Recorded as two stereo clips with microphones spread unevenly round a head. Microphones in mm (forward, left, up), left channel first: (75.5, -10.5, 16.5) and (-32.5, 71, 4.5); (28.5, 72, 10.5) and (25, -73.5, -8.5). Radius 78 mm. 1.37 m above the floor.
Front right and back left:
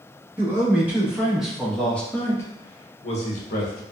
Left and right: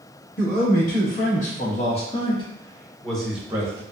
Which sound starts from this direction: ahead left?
A man speaking, at 0.4 s.